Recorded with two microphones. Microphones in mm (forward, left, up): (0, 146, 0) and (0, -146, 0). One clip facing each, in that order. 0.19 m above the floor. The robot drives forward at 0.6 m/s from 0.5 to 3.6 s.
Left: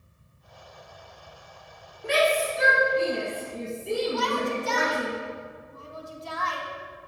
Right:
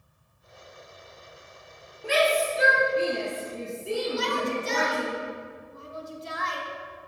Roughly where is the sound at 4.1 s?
Right.